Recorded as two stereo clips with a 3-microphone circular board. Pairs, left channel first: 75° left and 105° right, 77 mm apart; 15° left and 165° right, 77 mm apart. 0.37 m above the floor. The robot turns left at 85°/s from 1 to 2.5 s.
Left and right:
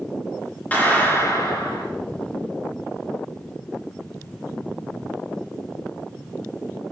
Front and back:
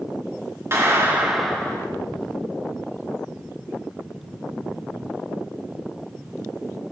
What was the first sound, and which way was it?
A clap, 140° left.